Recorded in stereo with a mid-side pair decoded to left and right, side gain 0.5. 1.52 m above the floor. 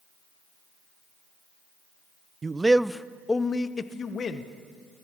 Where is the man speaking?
30° right, 0.7 m; by 4.5 s 45° left, 1.3 m.